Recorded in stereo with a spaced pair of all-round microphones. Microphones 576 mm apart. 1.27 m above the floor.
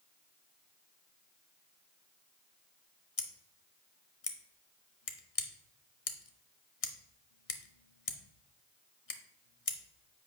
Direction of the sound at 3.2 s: 60° left (ahead or behind).